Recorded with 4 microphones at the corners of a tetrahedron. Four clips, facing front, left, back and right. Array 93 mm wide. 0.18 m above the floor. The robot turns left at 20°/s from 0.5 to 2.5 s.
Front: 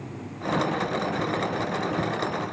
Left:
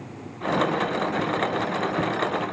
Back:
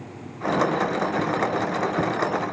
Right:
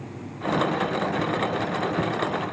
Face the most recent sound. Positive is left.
No sound to turn to.